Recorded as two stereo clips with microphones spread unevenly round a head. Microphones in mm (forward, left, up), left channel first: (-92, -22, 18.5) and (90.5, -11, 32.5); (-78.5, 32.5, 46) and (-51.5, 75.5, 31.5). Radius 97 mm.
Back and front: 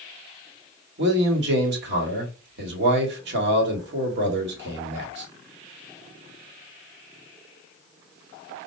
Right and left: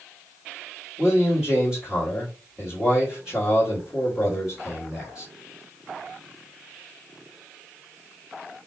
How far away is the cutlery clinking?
No cutlery clinking in this recording.